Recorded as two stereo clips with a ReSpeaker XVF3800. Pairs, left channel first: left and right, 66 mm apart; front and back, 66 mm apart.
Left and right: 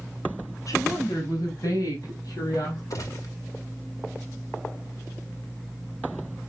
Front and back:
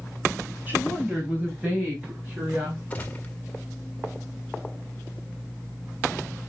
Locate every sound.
0.7 s a woman speaking: 120° left, 3 m; by 2.8 s 115° left, 6 m
2.9 s a gunshot: 65° left, 1.8 m